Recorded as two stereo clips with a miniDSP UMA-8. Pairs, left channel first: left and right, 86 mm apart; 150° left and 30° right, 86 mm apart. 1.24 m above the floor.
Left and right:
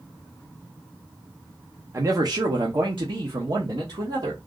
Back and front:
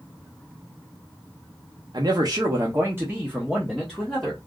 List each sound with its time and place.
1.9 s a man speaking: 45° right, 0.8 m; by 4.4 s 115° right, 1.5 m